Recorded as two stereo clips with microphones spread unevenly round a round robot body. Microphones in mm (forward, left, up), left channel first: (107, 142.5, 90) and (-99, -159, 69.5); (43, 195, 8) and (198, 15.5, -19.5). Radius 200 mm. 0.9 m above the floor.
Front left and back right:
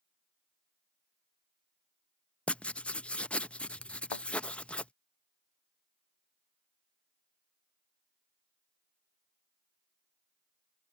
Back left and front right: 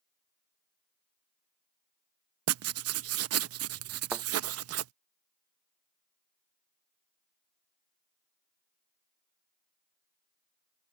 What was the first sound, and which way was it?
Writing, 30° right.